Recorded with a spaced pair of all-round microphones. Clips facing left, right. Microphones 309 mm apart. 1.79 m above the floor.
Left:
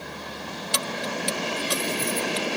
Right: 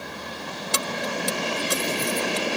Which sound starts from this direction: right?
Keys jangling, at 0.7 s.